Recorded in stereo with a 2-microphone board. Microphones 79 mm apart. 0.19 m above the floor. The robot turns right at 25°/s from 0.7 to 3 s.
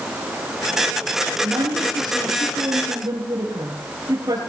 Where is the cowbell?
I don't hear a cowbell.